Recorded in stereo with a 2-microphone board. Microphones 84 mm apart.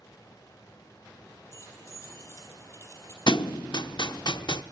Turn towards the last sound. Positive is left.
turn(degrees=60)  # may be behind; listen again after turning